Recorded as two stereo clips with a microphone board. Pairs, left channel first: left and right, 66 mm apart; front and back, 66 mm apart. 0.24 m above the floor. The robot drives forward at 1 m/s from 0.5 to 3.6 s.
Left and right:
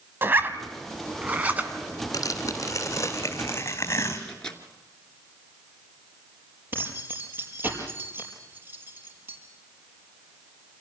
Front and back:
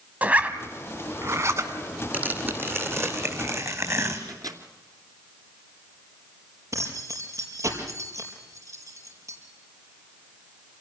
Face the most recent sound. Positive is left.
turn(degrees=-145)